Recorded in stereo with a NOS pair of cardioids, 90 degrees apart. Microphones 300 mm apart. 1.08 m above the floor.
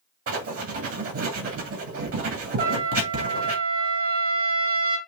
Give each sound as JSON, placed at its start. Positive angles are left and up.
{"t": 0.3, "sound": "writing", "azimuth_deg": -50, "distance_m": 2.0}
{"t": 2.6, "sound": "a trumpet", "azimuth_deg": -50, "distance_m": 2.0}